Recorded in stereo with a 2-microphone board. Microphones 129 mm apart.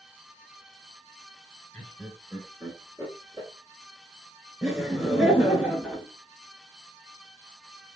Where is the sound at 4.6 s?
5° right (ahead or behind), 1.3 m.